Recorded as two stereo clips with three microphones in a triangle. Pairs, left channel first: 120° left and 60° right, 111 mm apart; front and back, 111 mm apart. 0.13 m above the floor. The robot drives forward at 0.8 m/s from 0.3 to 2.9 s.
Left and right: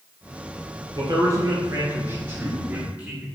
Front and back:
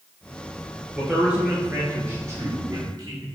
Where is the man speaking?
95° right, 2.5 m; by 3.2 s 135° right, 3 m.